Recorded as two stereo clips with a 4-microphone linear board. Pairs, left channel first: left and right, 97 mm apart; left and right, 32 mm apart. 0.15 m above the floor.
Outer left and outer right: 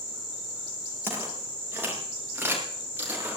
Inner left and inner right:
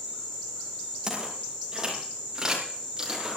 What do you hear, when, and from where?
1.0 s footsteps: 25° right (ahead or behind), 7 m; by 3.4 s 20° right (ahead or behind), 9 m